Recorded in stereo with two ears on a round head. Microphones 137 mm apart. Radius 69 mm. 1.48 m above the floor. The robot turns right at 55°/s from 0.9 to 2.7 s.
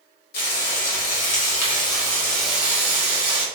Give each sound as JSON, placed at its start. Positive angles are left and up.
{"t": 0.3, "sound": "frying", "azimuth_deg": 95, "distance_m": 1.6}